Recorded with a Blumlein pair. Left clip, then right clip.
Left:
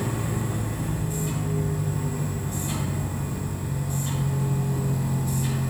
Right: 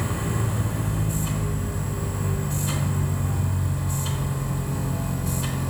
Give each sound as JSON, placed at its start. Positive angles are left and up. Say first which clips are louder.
{"t": 0.0, "sound": "a machine running", "louder": "right 1 dB", "azimuth_deg": -60, "distance_m": 2.5}